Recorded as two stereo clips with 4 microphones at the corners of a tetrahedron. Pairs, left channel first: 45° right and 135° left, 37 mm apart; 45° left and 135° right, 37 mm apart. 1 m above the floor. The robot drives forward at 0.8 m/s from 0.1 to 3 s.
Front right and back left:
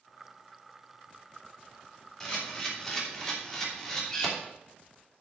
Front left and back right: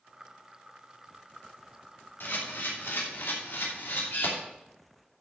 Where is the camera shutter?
30° left, 3.5 m; by 4.3 s 35° left, 3 m.